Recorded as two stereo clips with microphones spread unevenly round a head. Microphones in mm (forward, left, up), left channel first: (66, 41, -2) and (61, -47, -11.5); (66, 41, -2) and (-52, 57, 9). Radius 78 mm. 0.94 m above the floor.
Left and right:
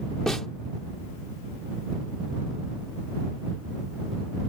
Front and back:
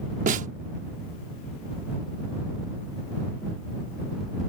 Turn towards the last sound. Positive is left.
turn(degrees=170)